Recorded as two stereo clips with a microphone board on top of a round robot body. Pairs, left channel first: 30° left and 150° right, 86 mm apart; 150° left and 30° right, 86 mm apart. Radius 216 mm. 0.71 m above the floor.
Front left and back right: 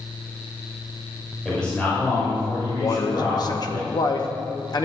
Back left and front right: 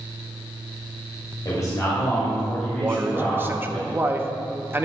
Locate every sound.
1.4 s a man speaking: 115° left, 2.5 m; by 3.8 s 55° left, 3.5 m
2.8 s a man speaking: 25° left, 1.0 m